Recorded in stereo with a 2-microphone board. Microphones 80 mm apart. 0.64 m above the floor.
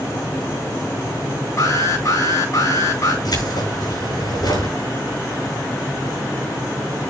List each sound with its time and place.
1.6 s an alarm: 40° left (ahead or behind), 8.5 m
3.2 s keys jangling: 60° left (ahead or behind), 6 m